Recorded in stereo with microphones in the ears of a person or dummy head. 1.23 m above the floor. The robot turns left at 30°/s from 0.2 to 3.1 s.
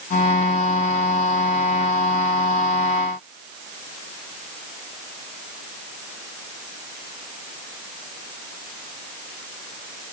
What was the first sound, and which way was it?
Only background noise.